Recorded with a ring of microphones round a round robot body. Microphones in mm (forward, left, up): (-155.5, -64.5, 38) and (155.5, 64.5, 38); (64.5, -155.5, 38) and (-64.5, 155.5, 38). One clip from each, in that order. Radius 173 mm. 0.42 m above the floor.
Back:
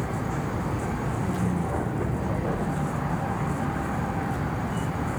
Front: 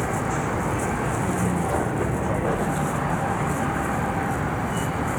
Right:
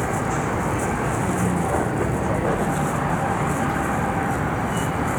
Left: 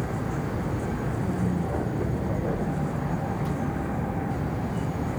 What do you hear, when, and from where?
0.0 s a vehicle: 30° right; by 5.2 s 40° right